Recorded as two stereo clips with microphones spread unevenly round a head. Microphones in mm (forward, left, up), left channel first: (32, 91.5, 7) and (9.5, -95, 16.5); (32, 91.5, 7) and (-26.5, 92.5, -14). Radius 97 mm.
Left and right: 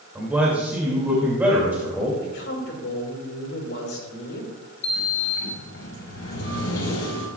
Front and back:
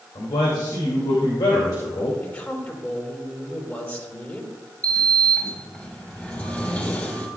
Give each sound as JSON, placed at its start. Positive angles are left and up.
{"t": 0.1, "sound": "a man speaking", "azimuth_deg": -15, "distance_m": 2.5}
{"t": 2.2, "sound": "a man speaking", "azimuth_deg": 55, "distance_m": 5.0}
{"t": 4.8, "sound": "a sliding door", "azimuth_deg": 60, "distance_m": 4.5}